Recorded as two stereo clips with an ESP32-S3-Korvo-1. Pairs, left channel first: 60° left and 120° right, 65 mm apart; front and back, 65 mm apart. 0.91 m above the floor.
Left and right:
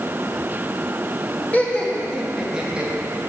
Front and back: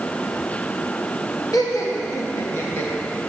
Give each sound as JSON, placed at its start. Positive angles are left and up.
{"t": 1.5, "sound": "laughter", "azimuth_deg": 0, "distance_m": 1.5}